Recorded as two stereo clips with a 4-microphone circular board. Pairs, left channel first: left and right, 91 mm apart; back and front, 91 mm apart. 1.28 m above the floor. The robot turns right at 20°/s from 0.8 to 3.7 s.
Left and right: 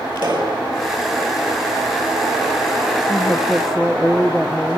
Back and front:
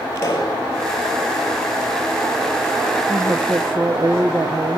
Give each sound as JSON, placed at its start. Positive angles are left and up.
{"t": 0.1, "sound": "a pop", "azimuth_deg": -125, "distance_m": 6.5}
{"t": 3.1, "sound": "a woman speaking", "azimuth_deg": -10, "distance_m": 1.1}